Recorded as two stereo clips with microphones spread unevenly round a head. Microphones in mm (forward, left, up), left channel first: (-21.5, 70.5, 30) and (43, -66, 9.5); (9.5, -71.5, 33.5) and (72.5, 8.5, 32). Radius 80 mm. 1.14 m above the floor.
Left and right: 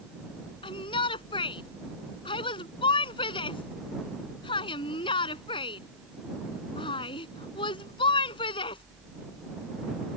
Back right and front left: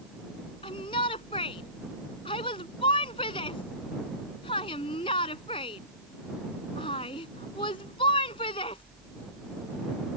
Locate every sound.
0.6 s a shout: 175° left